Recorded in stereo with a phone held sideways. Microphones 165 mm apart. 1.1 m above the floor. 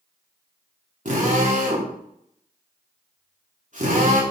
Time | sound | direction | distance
1.1 | a drill | 50° right (ahead or behind) | 3 m